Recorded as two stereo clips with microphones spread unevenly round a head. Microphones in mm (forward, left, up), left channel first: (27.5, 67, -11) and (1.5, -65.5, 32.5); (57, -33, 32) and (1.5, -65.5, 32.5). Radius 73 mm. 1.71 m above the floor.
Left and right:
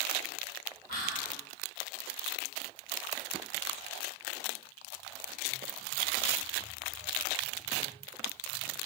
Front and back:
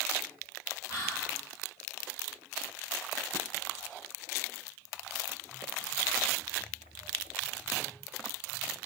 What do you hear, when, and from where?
0.9 s whispering: 65° left, 1.6 m